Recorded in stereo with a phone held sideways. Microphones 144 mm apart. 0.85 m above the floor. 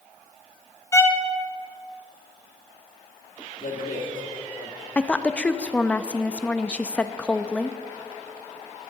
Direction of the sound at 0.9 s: 20° left (ahead or behind).